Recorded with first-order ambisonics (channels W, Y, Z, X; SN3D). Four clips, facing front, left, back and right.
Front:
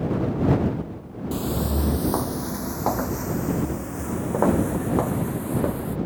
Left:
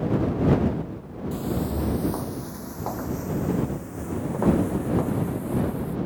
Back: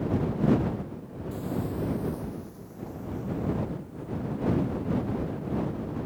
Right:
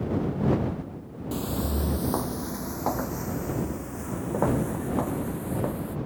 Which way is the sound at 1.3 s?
25° right.